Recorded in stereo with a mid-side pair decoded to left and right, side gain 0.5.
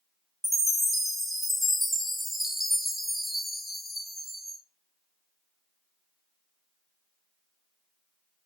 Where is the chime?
5° right, 2.5 m.